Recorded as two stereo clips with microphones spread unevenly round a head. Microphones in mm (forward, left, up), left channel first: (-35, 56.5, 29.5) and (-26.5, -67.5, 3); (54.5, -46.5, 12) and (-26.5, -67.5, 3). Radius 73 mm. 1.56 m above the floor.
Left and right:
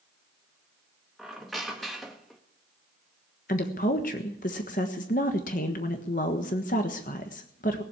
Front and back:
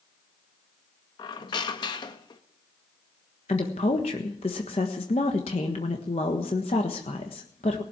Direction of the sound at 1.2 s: 15° left.